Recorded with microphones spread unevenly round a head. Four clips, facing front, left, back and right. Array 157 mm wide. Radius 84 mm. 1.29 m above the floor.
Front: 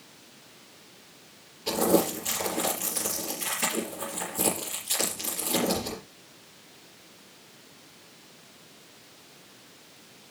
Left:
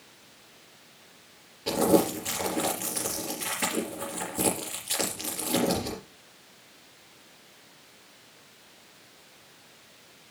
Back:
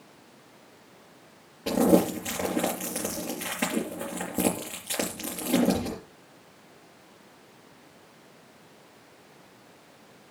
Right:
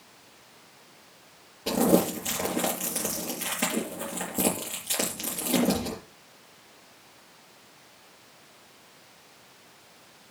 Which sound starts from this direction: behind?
Crumpling, at 1.7 s.